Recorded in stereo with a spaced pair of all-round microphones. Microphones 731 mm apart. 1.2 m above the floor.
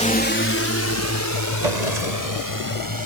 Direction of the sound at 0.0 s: 10° left (ahead or behind).